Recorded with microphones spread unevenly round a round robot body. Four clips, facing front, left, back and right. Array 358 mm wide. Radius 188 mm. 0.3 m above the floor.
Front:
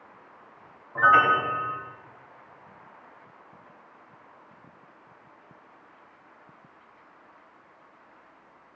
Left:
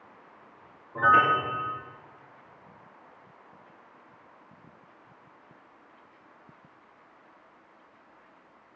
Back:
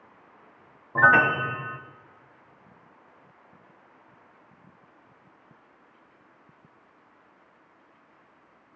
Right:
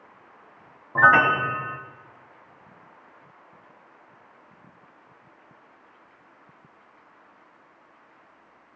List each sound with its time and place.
0.9 s a piano: 135° right, 1.0 m